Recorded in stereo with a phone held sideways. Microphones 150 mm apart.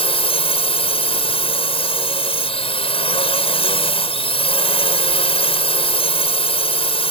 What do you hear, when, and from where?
0.0 s a drone: 40° left (ahead or behind)